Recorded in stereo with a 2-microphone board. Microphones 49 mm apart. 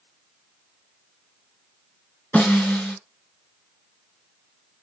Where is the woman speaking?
No woman speaking in this recording.